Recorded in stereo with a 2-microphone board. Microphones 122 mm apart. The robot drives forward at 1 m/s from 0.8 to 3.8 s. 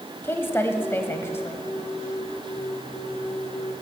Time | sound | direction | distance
0.2 | a woman speaking | 20° left (ahead or behind) | 1.4 m